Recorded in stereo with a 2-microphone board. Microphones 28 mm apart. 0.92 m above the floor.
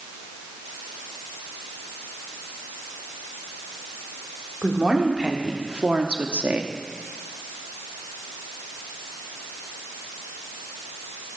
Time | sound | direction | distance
4.6 | a woman speaking | 25° right (ahead or behind) | 2 m